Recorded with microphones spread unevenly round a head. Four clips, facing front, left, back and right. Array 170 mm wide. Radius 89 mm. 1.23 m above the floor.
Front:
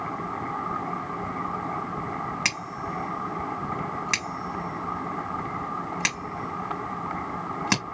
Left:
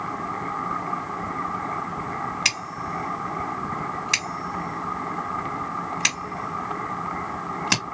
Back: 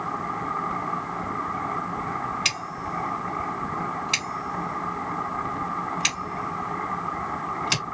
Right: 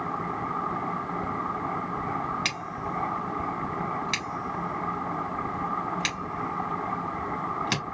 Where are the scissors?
15° left, 2.5 m.